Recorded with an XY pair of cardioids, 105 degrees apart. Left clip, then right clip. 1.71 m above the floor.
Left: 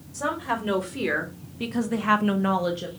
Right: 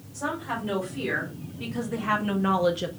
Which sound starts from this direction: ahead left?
A woman speaking, at 0.1 s.